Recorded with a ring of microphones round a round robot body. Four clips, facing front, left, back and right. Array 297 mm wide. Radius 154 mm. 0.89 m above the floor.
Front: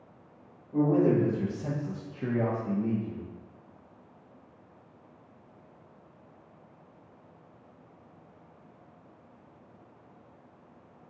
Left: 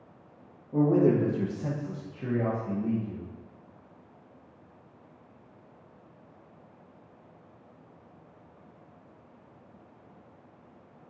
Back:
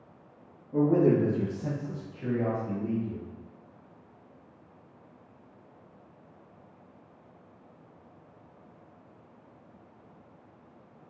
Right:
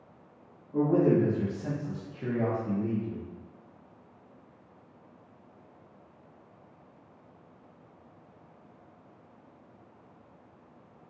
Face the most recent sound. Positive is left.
turn(degrees=-30)